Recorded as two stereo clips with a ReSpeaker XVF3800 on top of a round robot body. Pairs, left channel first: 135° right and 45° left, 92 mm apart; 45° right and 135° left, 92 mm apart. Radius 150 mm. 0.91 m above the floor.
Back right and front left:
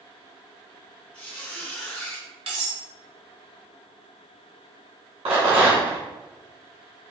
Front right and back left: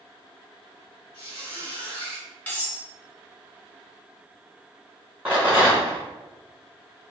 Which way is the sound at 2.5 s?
30° left.